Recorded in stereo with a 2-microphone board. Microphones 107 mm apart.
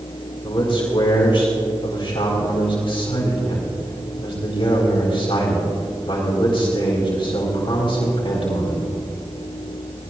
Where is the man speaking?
60° left (ahead or behind), 3.5 m.